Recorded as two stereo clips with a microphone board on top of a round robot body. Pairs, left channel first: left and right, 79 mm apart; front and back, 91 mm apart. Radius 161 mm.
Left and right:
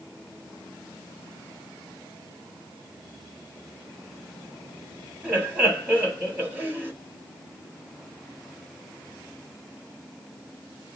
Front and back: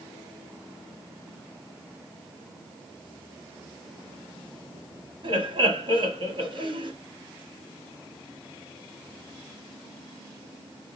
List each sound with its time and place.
5.2 s laughter: 155° right, 2.5 m